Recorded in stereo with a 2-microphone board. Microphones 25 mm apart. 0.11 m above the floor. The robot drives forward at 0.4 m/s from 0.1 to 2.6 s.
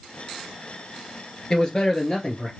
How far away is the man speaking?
About 1.5 m.